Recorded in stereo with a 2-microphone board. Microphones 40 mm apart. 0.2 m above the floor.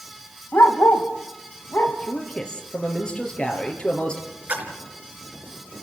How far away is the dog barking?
About 3.5 m.